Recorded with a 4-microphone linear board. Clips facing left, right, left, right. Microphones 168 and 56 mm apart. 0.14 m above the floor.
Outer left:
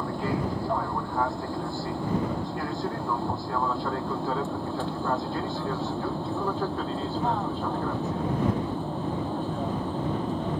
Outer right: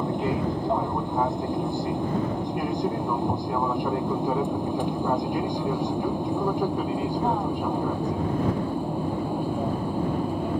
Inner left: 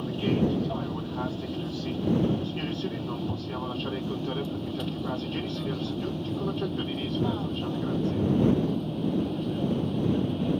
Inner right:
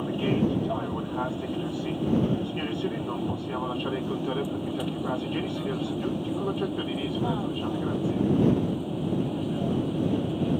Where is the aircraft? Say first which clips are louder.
Outer right 3 dB, inner right 1 dB; 20° right (ahead or behind); by 10.6 s 10° right (ahead or behind).